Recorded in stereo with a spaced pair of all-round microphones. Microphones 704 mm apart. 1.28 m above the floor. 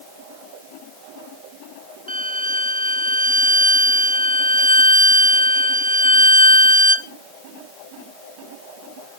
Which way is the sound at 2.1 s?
10° right (ahead or behind).